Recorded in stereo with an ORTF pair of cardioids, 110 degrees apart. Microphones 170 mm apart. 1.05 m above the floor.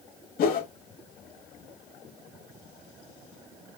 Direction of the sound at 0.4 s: 60° left.